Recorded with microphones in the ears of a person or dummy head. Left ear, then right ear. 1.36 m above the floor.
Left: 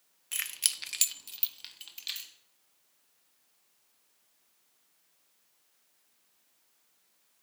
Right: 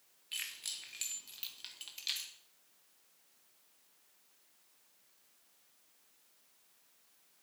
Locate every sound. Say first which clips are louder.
0.3 s keys jangling: left 7 dB; 35° left (ahead or behind), 1.0 m; by 2.3 s 10° left (ahead or behind), 2 m